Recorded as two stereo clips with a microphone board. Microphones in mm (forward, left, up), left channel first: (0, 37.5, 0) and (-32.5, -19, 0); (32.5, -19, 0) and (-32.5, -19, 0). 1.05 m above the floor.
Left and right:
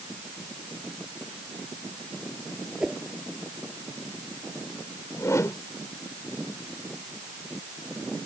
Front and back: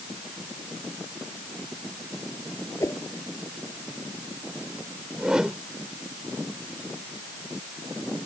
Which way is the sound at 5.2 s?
100° left.